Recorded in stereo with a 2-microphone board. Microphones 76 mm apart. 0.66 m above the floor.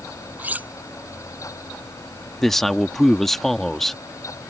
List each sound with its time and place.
0.4 s cutlery clinking: 20° right (ahead or behind)
2.4 s a man speaking: 5° left (ahead or behind)